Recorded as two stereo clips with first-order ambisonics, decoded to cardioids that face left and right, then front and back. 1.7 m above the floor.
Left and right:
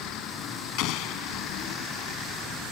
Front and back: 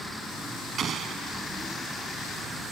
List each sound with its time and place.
0.8 s an explosion: 120° left